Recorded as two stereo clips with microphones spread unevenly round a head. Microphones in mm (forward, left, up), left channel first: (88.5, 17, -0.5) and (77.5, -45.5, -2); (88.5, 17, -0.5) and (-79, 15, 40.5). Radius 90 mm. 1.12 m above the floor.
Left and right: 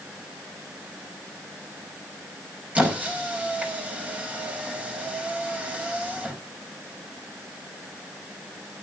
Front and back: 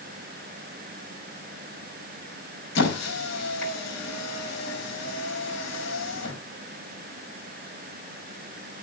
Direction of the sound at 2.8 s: 30° right.